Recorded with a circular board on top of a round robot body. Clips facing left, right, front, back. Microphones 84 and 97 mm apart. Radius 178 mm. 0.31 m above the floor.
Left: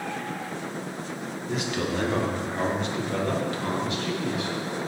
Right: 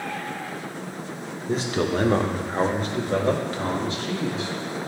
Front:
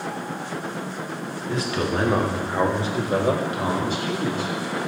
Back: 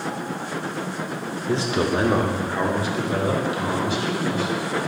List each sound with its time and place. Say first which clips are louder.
1.5 s a man speaking: right 5 dB, back 3 dB; 135° right, 1.3 m; by 4.5 s 30° right, 3 m